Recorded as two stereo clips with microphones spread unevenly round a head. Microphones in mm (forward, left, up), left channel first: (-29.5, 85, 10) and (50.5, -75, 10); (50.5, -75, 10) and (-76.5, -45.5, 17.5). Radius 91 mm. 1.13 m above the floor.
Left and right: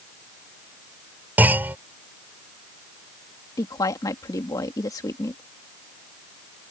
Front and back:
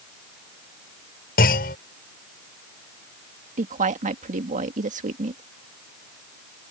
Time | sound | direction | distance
1.4 | a clunk | 20° left | ?
3.6 | a woman speaking | 170° right | ?